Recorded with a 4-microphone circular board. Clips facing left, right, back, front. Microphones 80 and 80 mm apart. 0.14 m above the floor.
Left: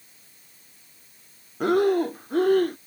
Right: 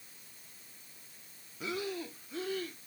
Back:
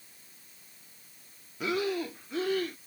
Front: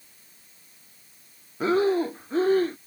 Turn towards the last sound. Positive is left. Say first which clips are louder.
# left 18 dB, front 9 dB
turn(degrees=55)